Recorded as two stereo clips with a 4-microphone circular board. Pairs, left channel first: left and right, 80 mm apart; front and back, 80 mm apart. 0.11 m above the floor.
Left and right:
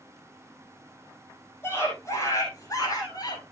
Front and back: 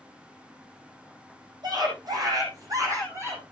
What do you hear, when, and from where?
1.6 s a scream: 150° left, 6 m; by 3.4 s 125° left, 6 m